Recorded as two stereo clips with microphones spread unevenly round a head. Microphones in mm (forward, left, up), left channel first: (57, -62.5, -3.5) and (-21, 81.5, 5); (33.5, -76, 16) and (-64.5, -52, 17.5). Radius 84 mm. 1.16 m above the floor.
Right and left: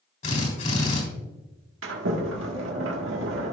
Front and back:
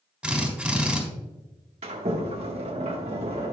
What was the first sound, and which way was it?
A drill, 110° right.